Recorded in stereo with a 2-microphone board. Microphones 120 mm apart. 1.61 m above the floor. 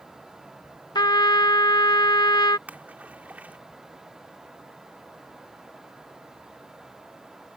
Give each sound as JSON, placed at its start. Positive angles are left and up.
{"t": 0.9, "sound": "a trumpet", "side_deg": 35}
{"t": 2.7, "sound": "a splash", "side_deg": -15}